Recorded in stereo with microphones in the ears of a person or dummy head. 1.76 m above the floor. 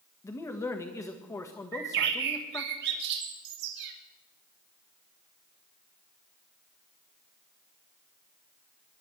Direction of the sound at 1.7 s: 60° right (ahead or behind).